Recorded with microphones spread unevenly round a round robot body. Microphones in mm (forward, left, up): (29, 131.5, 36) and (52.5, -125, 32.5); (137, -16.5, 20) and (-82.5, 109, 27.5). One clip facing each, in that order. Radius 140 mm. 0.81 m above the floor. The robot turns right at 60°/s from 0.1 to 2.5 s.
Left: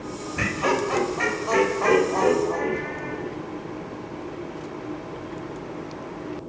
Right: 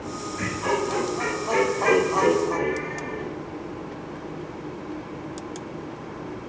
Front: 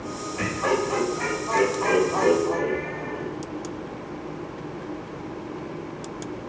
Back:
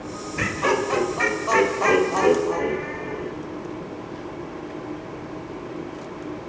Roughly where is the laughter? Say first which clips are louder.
Left 2 dB, back 1 dB; left.